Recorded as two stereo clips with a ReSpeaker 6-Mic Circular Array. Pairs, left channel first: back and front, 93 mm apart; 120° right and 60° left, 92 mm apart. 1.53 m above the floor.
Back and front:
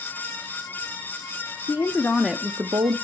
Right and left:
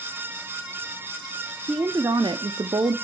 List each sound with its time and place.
1.7 s a woman speaking: 125° left, 0.9 m; by 2.9 s 20° left, 0.7 m